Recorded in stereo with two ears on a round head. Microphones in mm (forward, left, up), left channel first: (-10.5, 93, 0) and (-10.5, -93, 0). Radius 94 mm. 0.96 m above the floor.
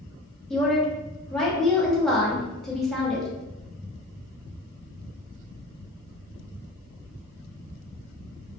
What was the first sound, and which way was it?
A woman speaking, 5° left (ahead or behind).